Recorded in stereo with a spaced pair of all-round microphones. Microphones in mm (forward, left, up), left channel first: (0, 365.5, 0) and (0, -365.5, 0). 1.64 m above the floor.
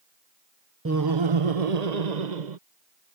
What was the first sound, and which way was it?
Laughter, 20° right (ahead or behind).